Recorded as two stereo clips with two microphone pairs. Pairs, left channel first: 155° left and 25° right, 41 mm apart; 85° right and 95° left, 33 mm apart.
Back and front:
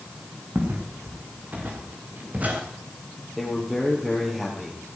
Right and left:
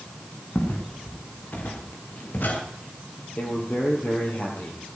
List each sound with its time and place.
0.6 s footsteps: 60° right, 4 m; by 2.6 s 70° right, 4.5 m
3.4 s a man speaking: 110° right, 5 m